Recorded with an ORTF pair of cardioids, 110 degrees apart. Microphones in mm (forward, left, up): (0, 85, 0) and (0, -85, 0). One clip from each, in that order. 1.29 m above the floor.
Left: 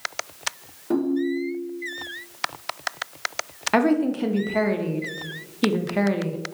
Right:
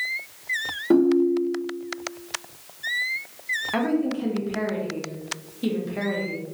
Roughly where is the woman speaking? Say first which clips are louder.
Left 9 dB; ahead left.